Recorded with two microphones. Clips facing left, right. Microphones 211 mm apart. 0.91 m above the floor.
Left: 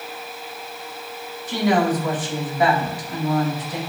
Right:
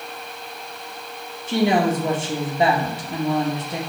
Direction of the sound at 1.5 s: 25° right (ahead or behind).